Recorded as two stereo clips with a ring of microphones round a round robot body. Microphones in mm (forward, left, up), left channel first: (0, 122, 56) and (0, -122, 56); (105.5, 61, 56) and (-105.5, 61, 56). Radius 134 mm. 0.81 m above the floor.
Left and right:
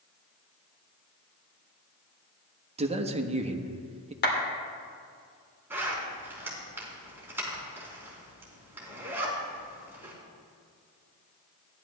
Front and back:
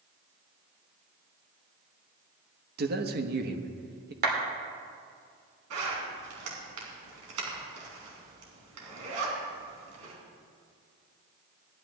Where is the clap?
140° left, 2.5 m.